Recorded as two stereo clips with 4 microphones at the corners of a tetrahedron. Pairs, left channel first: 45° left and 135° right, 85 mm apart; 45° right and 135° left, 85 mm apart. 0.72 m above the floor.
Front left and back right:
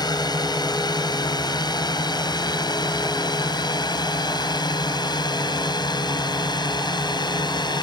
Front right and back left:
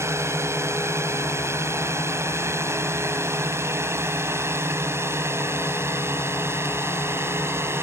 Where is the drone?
80° left; by 7.8 s 75° left.